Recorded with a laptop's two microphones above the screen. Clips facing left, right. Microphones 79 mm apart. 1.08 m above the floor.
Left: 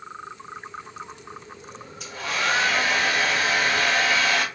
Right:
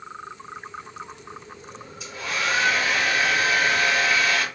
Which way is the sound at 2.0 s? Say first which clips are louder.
Left 1 dB; 55° left (ahead or behind).